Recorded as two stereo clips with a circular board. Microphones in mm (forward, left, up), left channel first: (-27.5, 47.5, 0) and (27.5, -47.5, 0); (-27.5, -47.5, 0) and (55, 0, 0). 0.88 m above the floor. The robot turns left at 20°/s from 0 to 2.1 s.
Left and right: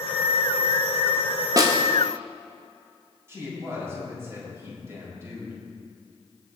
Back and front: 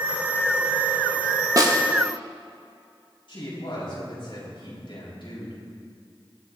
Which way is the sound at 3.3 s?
125° right.